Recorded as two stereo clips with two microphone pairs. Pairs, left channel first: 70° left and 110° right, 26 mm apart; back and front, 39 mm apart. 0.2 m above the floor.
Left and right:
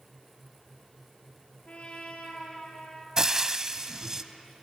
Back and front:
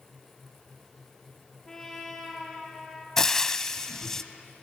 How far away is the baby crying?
I don't hear a baby crying.